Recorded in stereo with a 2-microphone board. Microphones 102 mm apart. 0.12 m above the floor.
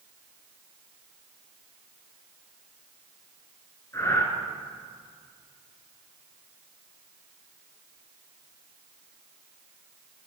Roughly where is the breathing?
Left.